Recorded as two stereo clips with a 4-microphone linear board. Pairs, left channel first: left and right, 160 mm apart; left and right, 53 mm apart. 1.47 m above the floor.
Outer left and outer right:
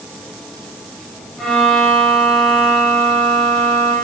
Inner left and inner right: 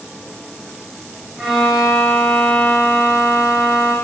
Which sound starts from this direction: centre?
A violin, at 1.4 s.